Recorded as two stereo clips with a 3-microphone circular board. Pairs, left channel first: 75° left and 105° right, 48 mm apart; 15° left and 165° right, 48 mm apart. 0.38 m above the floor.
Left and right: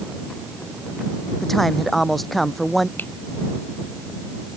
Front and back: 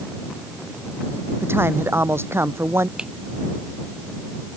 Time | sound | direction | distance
1.4 | a man speaking | 160° left | ?
3.0 | a finger snap | 120° left | ?